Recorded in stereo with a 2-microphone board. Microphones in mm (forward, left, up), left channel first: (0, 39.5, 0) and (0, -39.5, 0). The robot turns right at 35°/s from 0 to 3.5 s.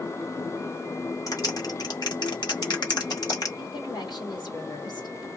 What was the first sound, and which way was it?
A clap, 45° left (ahead or behind).